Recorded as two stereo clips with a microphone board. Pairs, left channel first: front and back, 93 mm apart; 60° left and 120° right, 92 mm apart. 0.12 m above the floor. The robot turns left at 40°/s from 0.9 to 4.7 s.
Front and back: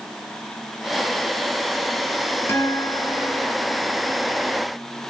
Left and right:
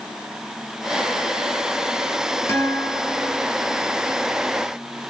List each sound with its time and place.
2.5 s a guitar: 30° left, 2 m; by 3.5 s 10° right, 2 m